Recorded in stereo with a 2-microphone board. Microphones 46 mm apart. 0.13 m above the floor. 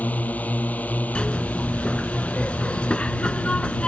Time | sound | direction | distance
0.0 | a drone | 35° left (ahead or behind) | ?
1.1 | a zipper | 25° left (ahead or behind) | ?